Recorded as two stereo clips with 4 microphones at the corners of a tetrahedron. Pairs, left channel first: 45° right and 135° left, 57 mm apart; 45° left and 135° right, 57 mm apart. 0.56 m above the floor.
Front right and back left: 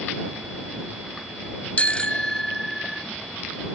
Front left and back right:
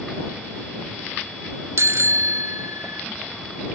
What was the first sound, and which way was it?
A bicycle bell, 110° right.